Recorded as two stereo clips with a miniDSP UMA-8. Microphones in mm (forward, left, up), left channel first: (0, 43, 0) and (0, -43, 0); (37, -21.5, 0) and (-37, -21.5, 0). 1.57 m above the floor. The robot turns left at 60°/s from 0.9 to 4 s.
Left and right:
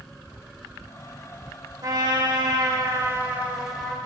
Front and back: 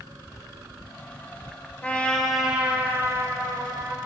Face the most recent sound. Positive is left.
turn(degrees=165)